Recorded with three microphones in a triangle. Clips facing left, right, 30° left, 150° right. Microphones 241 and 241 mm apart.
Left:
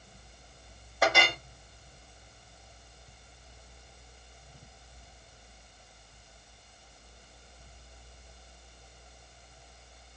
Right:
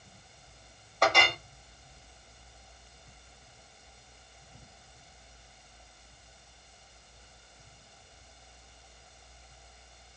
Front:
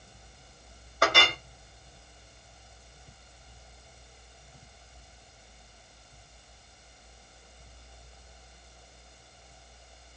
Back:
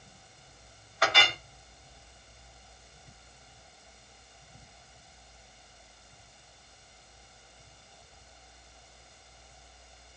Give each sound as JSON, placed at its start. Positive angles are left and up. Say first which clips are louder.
{"t": 1.0, "sound": "a clink", "louder": "even, front 4 dB", "azimuth_deg": 10, "distance_m": 0.8}